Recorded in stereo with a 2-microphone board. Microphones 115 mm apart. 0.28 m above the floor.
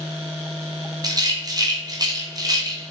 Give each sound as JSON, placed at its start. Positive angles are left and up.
{"t": 1.0, "sound": "a rattle", "side_deg": -35, "distance_m": 2.0}